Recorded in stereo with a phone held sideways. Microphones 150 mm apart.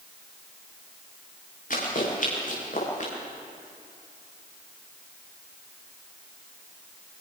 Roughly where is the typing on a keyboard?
No typing on a keyboard in this recording.